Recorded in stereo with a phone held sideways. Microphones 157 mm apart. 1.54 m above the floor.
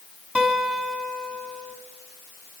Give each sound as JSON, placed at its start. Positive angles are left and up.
{"t": 0.3, "sound": "a guitar", "side_deg": -10, "distance_m": 4.0}